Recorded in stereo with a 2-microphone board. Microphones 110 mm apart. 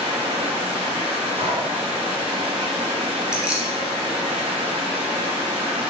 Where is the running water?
75° right (ahead or behind), 2 m.